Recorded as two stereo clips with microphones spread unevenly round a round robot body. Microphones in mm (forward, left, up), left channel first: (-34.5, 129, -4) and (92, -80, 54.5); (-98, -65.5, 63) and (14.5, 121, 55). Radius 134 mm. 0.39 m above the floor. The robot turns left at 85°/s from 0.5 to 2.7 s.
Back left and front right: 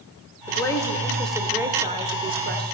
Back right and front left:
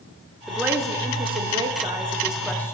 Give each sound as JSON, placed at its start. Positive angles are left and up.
{"t": 0.5, "sound": "a woman speaking", "azimuth_deg": 135, "distance_m": 1.4}